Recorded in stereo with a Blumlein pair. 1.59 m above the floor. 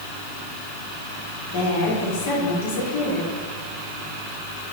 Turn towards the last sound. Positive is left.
turn(degrees=60)